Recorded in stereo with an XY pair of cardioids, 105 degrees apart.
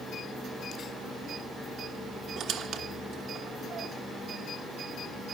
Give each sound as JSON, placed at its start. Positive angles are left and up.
{"t": 2.4, "sound": "a squeak", "azimuth_deg": -70, "distance_m": 1.4}